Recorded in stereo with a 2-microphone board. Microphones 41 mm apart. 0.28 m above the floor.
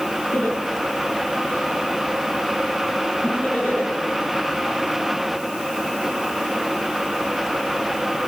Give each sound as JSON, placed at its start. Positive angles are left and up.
{"t": 0.3, "sound": "laughter", "side_deg": 50, "distance_m": 6.5}